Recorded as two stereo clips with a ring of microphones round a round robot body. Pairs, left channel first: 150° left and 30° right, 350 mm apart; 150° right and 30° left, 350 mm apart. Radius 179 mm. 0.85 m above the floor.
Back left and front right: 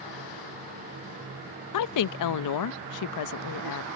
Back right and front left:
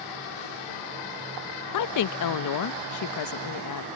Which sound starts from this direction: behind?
A woman speaking, at 1.7 s.